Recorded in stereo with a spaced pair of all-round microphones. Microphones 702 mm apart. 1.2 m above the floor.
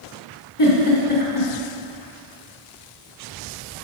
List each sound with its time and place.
0.6 s a giggle: 45° left (ahead or behind), 1.8 m